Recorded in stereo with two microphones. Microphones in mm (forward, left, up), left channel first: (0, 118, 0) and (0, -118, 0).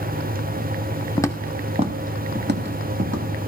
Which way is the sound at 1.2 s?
20° left (ahead or behind).